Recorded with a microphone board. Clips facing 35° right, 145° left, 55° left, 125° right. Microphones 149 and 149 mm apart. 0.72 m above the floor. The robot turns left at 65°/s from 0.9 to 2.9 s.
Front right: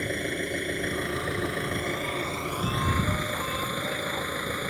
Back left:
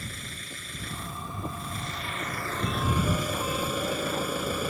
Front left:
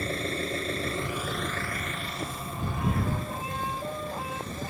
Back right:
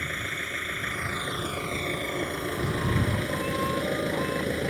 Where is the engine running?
5° right; by 4.7 s 135° right.